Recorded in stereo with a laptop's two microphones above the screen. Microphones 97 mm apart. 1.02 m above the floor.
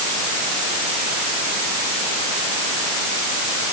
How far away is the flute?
I don't hear a flute.